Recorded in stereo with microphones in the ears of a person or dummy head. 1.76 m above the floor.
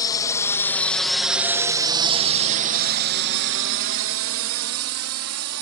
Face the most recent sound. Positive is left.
turn(degrees=-85)